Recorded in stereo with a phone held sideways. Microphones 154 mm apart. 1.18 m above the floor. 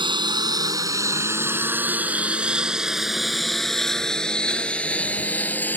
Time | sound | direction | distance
0.0 | a lawn mower | 35° right (ahead or behind) | ?